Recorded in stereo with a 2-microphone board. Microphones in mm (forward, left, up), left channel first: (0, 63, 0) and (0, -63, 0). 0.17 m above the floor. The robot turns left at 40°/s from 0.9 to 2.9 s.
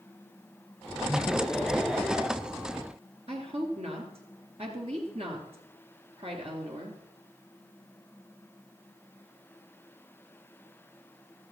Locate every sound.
1.1 s laughter: 20° left, 3 m; by 2.3 s 30° right, 3 m
3.3 s a woman speaking: 55° right (ahead or behind), 3 m